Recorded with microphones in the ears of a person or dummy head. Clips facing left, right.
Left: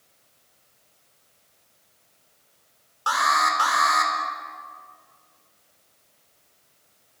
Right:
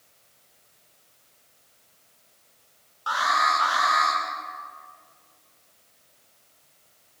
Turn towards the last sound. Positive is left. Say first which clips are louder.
# left 1 dB
turn(degrees=60)  # may be behind; listen again after turning